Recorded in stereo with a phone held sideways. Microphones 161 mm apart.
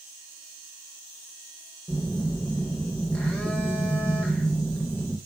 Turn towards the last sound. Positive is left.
turn(degrees=10)  # may be behind; listen again after turning